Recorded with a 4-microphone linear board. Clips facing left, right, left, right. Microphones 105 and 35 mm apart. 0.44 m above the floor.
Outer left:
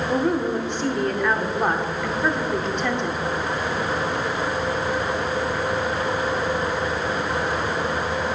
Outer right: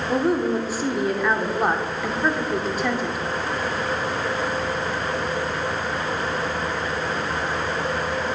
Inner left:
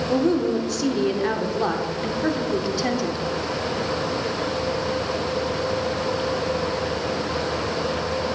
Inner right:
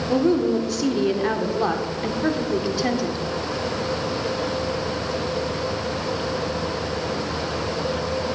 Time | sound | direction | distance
0.1 | a woman speaking | 5° right (ahead or behind) | 0.8 m